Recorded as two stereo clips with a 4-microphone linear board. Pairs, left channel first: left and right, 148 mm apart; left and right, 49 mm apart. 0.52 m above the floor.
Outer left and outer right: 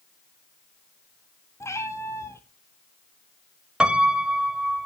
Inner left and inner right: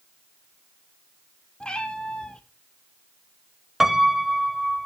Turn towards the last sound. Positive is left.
turn(degrees=-5)  # may be behind; listen again after turning